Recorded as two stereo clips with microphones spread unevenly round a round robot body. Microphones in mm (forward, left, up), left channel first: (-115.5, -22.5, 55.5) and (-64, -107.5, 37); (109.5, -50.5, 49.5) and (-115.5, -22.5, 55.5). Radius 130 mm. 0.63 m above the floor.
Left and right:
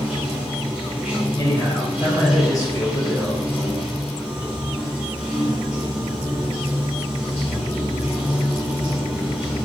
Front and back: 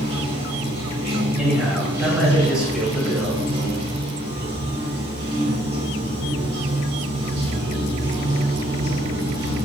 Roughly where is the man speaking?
Left.